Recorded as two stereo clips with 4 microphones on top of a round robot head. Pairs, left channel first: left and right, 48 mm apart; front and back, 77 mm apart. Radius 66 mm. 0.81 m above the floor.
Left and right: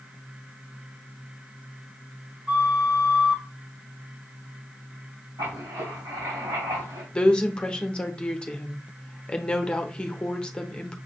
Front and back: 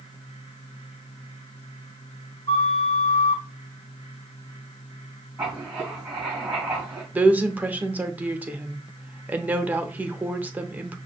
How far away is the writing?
About 2.5 m.